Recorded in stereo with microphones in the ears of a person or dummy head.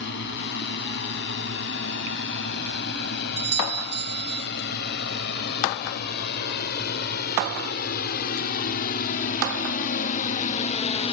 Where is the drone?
60° left (ahead or behind); by 11.1 s 30° left (ahead or behind).